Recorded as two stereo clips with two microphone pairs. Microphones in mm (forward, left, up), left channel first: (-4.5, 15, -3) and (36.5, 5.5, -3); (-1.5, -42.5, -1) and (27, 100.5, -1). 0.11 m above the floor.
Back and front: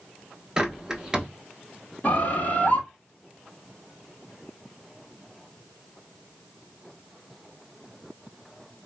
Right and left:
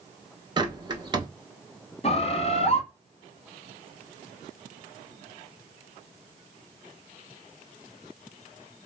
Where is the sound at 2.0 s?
145° right, 0.7 m.